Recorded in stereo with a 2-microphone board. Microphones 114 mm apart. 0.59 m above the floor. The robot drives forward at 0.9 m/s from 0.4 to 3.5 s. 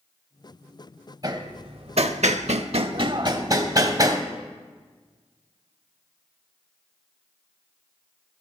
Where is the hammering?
35° right (ahead or behind), 1.2 m.